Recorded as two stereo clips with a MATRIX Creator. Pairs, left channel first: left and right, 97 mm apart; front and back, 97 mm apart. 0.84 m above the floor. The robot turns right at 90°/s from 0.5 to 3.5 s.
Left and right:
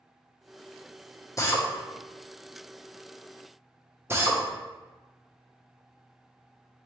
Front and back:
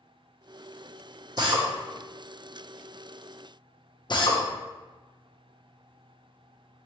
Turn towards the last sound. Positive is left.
turn(degrees=-30)